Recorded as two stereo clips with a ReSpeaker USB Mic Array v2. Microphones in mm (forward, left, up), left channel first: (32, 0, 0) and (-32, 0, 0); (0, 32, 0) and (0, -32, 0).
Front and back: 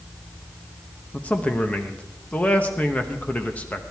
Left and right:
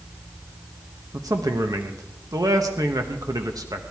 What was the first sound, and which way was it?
A man speaking, 70° right.